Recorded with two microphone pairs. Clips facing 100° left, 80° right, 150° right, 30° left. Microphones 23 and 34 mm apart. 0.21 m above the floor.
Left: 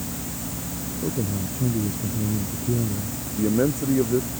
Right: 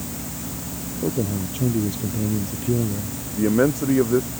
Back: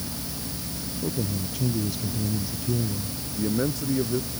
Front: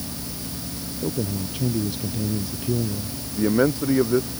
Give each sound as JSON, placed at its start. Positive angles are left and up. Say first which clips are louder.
{"t": 1.0, "sound": "a man speaking", "louder": "right 4 dB, front 3 dB", "azimuth_deg": -40}
{"t": 3.4, "sound": "a man speaking", "louder": "right 3 dB, front 7 dB", "azimuth_deg": -20}